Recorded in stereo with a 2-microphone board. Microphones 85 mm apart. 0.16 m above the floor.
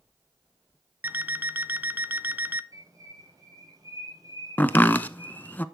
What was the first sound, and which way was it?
An alarm clock, 25° right (ahead or behind).